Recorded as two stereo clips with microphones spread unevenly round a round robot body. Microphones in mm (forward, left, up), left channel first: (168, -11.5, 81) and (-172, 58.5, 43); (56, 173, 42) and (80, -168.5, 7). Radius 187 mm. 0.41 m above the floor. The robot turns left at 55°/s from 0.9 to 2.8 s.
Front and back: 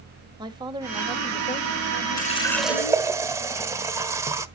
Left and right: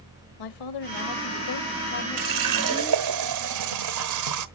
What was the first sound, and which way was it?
A woman speaking, 95° left.